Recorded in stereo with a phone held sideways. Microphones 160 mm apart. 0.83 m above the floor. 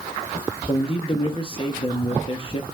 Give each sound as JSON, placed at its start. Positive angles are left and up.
{"t": 0.7, "sound": "a man speaking", "side_deg": 35, "distance_m": 1.5}